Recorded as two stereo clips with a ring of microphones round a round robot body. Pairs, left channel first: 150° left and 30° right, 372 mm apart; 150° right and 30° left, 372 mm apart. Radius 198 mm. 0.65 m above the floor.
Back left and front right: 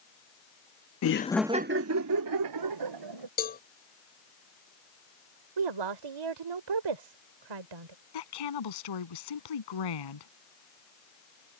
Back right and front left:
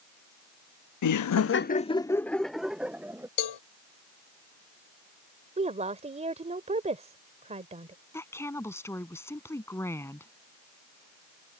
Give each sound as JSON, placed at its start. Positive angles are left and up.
{"t": 1.0, "sound": "laughter", "azimuth_deg": -175}
{"t": 3.4, "sound": "a cowbell", "azimuth_deg": -145}
{"t": 5.6, "sound": "a woman speaking", "azimuth_deg": -45}
{"t": 8.1, "sound": "a woman speaking", "azimuth_deg": 125}